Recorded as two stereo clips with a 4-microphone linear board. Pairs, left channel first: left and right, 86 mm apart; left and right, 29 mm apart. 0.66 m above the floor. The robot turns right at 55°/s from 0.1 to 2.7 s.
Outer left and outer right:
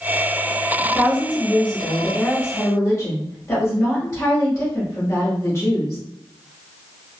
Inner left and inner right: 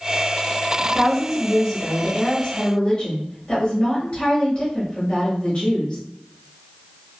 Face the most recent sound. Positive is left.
turn(degrees=75)